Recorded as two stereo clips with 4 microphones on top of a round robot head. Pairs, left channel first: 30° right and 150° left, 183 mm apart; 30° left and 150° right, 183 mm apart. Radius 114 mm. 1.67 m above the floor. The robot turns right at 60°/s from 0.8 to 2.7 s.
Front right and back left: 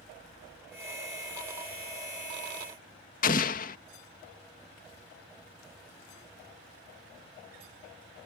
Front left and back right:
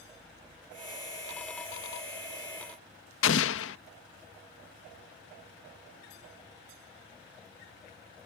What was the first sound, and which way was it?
An explosion, 15° left.